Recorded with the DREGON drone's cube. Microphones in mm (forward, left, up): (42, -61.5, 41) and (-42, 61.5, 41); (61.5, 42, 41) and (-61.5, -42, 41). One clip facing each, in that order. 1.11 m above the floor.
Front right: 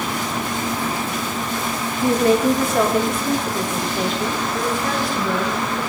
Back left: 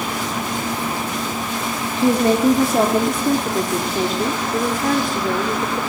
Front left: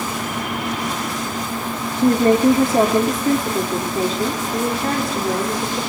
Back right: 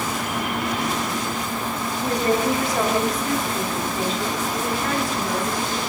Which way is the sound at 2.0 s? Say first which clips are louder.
Back left 1 dB, front left 8 dB; 65° left.